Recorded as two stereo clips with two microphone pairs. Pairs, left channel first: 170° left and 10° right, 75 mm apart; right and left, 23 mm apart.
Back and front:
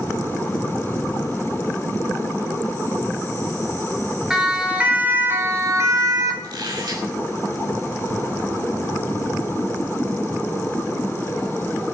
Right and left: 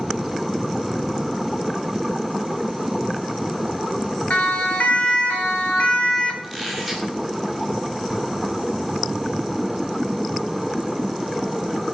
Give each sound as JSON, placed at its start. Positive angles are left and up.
{"t": 4.3, "sound": "a siren", "azimuth_deg": -90, "distance_m": 2.5}
{"t": 6.4, "sound": "a squeak", "azimuth_deg": 5, "distance_m": 6.0}